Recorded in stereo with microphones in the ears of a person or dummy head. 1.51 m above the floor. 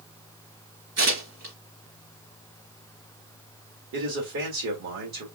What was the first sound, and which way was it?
Tearing paper, 45° right (ahead or behind).